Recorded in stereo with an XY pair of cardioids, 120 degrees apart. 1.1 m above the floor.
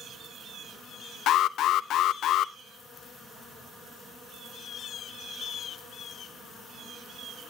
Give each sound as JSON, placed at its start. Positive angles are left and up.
{"t": 1.3, "sound": "an alarm", "azimuth_deg": 65, "distance_m": 0.7}